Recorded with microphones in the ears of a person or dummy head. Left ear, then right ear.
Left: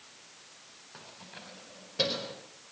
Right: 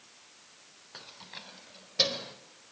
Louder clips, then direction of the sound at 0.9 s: Right 3 dB; 40° right (ahead or behind).